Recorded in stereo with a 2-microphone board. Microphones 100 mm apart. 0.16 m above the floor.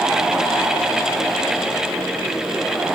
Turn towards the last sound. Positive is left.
No sound to turn to.